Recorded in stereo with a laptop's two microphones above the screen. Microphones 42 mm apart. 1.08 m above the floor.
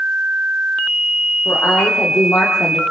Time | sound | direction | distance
1.4 | a woman speaking | 70° left (ahead or behind) | 4 m